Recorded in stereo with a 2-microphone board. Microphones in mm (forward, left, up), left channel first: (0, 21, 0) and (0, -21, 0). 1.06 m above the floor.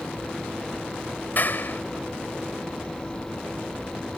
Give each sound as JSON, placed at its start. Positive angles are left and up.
{"t": 1.4, "sound": "a clap", "side_deg": 45}